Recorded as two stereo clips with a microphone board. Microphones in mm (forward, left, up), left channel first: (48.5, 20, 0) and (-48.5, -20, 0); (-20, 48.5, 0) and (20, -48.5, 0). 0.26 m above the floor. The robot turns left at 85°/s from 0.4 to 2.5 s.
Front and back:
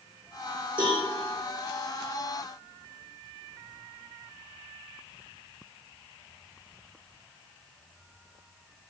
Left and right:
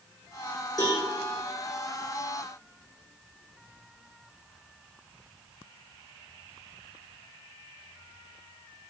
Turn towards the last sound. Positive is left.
turn(degrees=20)